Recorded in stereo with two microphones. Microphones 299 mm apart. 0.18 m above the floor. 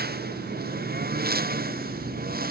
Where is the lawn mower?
30° right (ahead or behind).